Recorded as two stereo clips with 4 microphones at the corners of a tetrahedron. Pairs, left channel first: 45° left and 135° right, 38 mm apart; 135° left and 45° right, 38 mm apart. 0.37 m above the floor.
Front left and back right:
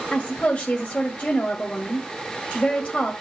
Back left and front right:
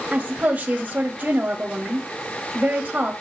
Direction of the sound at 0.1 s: 10° right.